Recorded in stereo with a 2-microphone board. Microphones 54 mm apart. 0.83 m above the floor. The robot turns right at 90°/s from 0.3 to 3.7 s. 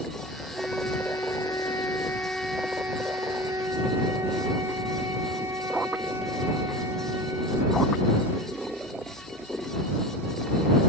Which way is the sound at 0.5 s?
Straight ahead.